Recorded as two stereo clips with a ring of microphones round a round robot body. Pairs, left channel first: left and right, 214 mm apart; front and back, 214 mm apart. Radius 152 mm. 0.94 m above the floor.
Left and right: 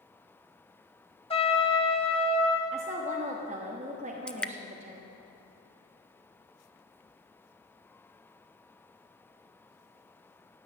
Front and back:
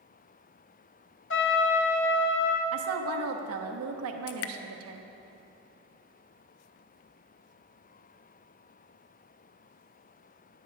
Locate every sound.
1.3 s a trumpet: 25° left, 1.7 m
2.7 s a woman speaking: 160° right, 1.1 m
4.3 s dripping: 5° left, 0.6 m